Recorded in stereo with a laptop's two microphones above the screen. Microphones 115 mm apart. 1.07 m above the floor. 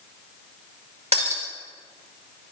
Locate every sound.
1.1 s breaking glass: 70° right (ahead or behind), 1.5 m